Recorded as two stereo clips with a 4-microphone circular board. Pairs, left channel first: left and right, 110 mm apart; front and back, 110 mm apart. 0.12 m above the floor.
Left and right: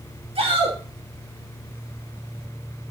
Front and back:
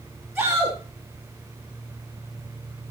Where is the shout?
105° right, 5 m.